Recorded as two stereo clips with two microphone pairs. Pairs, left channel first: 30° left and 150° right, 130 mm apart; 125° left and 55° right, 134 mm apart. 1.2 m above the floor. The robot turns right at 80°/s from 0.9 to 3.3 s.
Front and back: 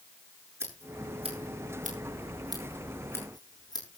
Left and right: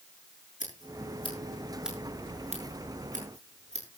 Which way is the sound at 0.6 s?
140° left.